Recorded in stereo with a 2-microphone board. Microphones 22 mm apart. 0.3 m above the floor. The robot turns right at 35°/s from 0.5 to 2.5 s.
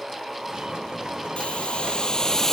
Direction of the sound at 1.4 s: 120° left.